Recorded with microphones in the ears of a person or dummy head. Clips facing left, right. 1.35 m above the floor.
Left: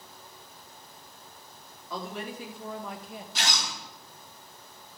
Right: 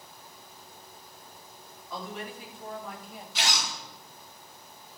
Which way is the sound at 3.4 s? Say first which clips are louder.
Right 1 dB; 45° left (ahead or behind).